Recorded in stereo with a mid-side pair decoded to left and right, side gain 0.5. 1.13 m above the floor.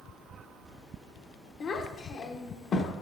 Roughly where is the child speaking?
Ahead left.